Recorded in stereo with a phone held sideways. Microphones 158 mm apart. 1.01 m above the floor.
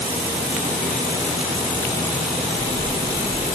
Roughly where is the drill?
No drill in this recording.